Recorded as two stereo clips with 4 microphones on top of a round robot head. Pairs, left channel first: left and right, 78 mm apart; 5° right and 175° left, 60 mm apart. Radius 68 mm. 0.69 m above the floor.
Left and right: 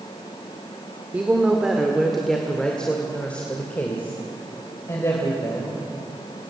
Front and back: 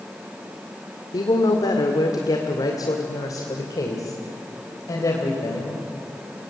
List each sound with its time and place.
1.1 s a woman speaking: 15° right, 1.8 m; by 5.8 s 30° left, 3.5 m